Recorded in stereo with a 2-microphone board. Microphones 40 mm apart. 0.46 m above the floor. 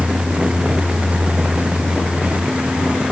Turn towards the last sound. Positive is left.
No sound to turn to.